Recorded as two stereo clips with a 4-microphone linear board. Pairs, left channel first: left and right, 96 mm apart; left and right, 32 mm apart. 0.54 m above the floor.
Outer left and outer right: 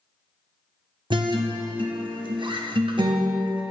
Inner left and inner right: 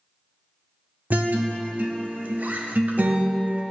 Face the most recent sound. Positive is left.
turn(degrees=-55)  # may be behind; listen again after turning